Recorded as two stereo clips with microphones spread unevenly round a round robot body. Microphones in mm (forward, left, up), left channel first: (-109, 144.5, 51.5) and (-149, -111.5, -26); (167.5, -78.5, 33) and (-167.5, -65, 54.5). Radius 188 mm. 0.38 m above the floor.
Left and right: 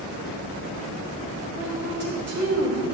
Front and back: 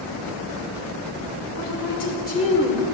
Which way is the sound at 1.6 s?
10° right.